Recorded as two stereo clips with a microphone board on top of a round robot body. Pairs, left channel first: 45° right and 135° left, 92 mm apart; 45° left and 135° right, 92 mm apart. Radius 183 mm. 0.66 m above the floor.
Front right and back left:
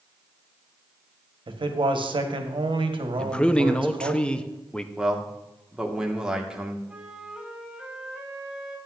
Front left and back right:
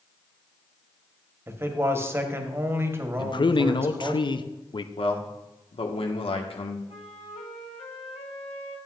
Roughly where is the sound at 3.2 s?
Ahead left.